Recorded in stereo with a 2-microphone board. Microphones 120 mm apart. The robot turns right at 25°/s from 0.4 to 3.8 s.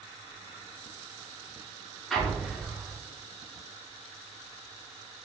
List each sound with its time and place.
2.1 s an explosion: centre (ahead or behind), 1.0 m; by 2.9 s 20° right (ahead or behind), 1.0 m